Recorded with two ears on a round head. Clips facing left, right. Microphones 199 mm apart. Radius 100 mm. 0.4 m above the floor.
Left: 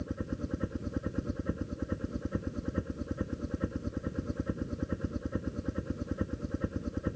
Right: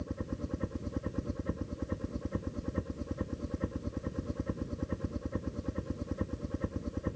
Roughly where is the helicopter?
Centre.